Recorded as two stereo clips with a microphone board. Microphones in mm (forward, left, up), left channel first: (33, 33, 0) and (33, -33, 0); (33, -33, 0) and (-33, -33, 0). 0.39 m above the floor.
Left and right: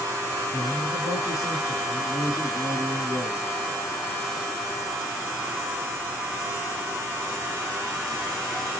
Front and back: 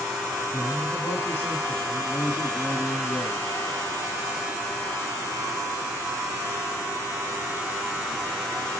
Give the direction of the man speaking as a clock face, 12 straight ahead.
10 o'clock.